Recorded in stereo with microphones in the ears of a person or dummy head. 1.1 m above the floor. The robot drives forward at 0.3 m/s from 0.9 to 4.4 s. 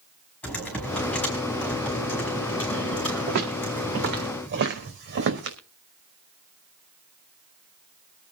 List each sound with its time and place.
0.4 s typing on a keyboard: 10° left (ahead or behind), 5 m
3.3 s footsteps: 45° right (ahead or behind), 5 m; by 5.6 s 55° right (ahead or behind), 4 m